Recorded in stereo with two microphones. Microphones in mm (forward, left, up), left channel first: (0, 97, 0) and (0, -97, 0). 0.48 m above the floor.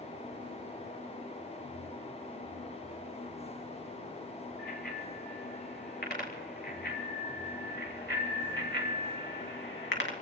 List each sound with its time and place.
4.6 s a bicycle bell: 55° left (ahead or behind), 7 m; by 10.1 s 75° left (ahead or behind), 2.5 m